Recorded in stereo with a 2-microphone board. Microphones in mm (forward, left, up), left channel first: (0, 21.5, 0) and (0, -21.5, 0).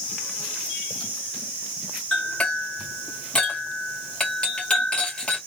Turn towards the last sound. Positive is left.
turn(degrees=25)  # may be behind; listen again after turning